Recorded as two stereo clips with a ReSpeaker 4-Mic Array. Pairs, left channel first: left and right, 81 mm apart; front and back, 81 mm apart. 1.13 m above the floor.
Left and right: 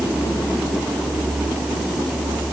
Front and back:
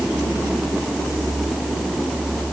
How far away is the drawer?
No drawer in this recording.